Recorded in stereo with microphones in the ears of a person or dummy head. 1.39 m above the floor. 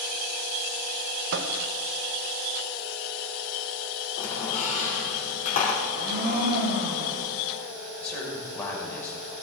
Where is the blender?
45° right (ahead or behind), 6.5 m.